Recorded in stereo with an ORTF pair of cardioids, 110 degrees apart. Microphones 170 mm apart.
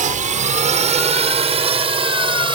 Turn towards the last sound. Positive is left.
turn(degrees=-30)